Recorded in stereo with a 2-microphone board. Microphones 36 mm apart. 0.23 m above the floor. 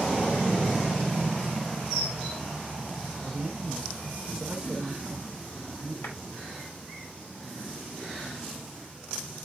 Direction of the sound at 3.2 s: 15° right (ahead or behind).